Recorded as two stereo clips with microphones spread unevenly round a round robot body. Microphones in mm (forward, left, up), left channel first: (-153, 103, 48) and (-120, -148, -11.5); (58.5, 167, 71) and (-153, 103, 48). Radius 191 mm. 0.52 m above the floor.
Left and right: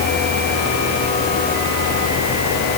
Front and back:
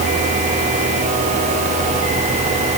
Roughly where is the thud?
I don't hear a thud.